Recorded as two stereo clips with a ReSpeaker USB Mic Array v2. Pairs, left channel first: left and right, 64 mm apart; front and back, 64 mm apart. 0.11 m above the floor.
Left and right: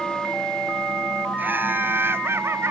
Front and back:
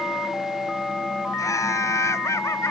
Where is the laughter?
30° right; by 2.7 s 45° right.